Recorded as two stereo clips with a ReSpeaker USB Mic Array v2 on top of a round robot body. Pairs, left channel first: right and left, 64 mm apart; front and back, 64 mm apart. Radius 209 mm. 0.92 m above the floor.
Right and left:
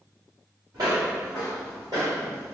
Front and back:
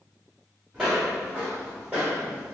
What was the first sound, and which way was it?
Footsteps, 90° left.